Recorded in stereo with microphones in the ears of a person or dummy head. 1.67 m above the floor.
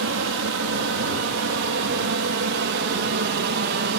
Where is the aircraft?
60° right (ahead or behind); by 4.0 s 50° right (ahead or behind).